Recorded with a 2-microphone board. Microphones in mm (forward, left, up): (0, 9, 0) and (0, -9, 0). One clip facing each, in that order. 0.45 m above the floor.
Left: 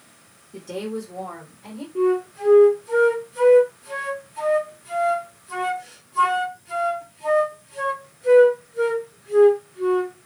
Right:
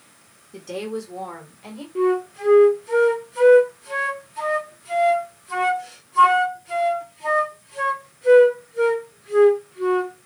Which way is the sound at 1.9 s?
10° right (ahead or behind).